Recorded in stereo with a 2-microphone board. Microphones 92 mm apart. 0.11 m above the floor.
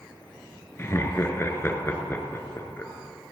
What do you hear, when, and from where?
0.8 s laughter: 30° left (ahead or behind), 1.2 m